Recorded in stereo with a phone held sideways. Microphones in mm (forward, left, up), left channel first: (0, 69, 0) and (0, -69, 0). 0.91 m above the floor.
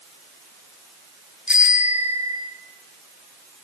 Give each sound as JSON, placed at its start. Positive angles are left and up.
{"t": 1.5, "sound": "a bicycle bell", "side_deg": -10, "distance_m": 5.5}